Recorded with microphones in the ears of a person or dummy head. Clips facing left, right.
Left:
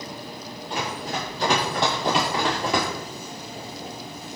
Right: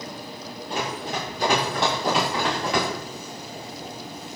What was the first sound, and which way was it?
Running footsteps, 35° right (ahead or behind).